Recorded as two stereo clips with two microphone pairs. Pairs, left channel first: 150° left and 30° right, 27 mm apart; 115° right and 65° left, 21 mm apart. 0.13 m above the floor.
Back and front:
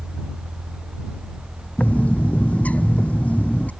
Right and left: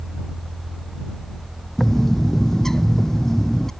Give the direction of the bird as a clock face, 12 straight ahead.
6 o'clock.